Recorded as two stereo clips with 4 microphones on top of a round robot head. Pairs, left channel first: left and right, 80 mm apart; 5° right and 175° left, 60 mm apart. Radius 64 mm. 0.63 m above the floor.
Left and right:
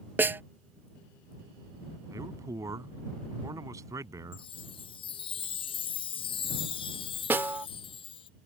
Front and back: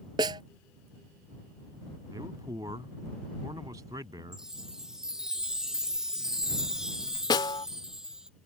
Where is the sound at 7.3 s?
20° right.